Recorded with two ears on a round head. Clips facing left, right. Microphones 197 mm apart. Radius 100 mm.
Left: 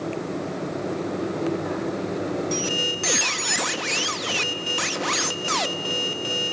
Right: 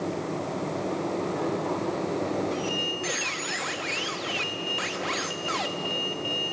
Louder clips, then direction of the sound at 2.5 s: Left 3 dB; 60° left (ahead or behind).